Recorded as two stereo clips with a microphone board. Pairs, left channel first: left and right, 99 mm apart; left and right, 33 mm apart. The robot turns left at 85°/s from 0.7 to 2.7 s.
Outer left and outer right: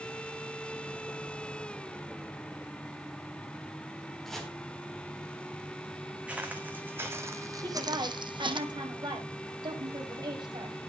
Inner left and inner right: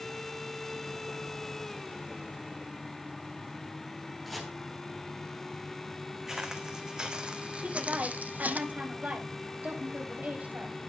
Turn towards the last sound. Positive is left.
turn(degrees=-45)  # may be behind; listen again after turning